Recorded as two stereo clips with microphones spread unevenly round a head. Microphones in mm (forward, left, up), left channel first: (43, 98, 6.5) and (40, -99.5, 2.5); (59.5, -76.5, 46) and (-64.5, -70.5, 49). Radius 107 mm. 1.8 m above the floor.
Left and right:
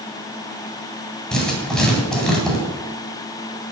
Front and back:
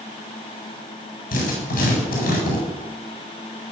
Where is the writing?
5° left, 9 m.